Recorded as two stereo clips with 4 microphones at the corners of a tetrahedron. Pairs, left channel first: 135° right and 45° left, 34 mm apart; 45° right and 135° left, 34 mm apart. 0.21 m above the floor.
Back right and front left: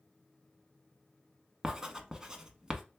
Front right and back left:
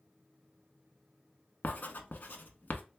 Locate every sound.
1.6 s writing: 25° right, 0.7 m